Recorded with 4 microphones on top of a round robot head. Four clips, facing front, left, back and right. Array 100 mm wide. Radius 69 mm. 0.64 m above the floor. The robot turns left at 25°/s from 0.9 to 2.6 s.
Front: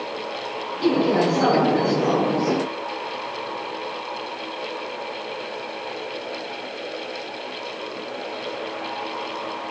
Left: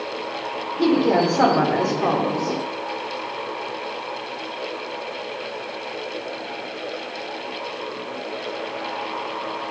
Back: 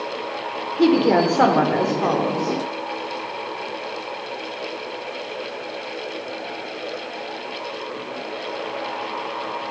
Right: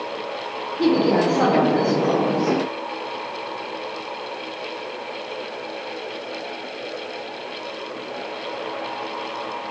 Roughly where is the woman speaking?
Behind.